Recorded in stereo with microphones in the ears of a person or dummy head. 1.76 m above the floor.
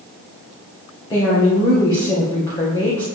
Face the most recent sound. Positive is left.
turn(degrees=20)  # may be behind; listen again after turning